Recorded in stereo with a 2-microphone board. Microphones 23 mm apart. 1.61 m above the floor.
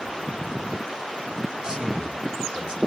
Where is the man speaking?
45° right (ahead or behind), 6.5 m; by 2.8 s 55° right (ahead or behind), 6 m.